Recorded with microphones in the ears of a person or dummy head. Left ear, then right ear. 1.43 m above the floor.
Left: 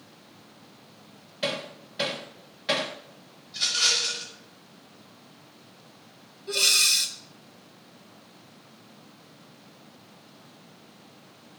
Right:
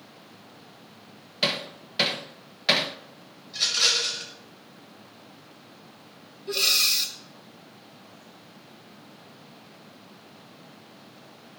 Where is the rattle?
40° right (ahead or behind), 6 m.